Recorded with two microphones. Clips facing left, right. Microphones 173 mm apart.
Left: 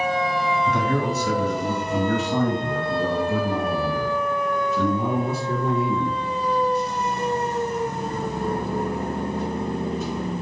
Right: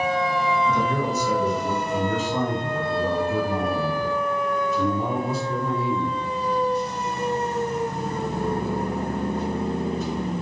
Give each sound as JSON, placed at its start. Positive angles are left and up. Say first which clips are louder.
{"t": 0.7, "sound": "a man speaking", "louder": "left 1 dB", "side_deg": 70, "distance_m": 2.5}